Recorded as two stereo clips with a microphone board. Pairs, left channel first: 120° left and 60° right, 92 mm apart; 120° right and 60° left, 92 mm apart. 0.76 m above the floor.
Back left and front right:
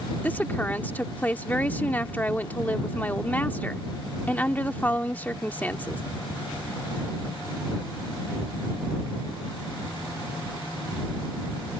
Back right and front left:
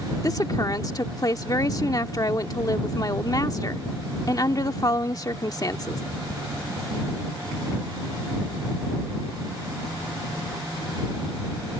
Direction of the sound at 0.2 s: 170° right.